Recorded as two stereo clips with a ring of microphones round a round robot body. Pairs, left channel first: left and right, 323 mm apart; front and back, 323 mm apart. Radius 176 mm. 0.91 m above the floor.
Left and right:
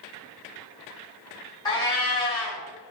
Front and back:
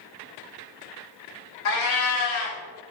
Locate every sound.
1.6 s a cat meowing: 15° left, 1.0 m